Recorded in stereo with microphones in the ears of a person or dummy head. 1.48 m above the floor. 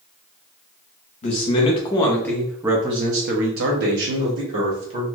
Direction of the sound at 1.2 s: 30° left (ahead or behind).